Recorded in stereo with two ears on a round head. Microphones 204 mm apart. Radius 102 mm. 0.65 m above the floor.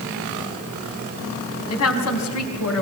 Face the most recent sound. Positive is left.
turn(degrees=80)